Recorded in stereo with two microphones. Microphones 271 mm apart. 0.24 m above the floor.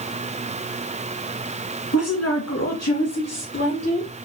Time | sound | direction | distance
1.9 | a woman speaking | 65° left (ahead or behind) | 2 m